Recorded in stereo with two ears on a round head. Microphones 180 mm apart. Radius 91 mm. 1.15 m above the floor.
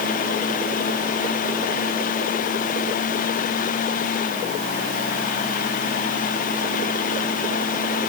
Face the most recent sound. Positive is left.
No sound to turn to.